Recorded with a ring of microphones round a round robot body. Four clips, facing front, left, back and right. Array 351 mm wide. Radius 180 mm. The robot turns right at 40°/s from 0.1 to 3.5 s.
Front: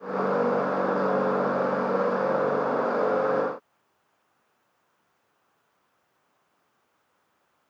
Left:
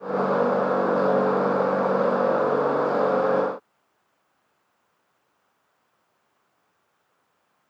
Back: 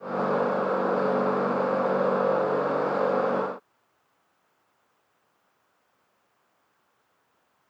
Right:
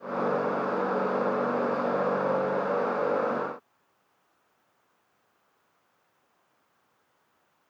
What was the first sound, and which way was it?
Only background noise.